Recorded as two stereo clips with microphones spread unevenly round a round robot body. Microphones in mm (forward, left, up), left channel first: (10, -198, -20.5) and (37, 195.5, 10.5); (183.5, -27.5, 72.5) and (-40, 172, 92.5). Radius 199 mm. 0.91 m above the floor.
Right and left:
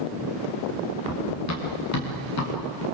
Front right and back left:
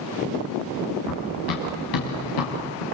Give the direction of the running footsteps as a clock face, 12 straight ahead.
1 o'clock.